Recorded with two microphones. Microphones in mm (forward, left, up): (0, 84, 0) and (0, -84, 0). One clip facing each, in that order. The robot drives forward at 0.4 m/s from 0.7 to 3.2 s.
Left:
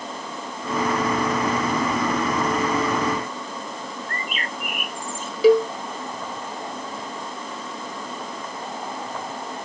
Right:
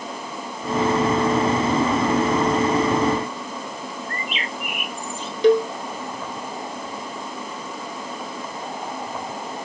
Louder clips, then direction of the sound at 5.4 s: Left 1 dB; 5° left (ahead or behind).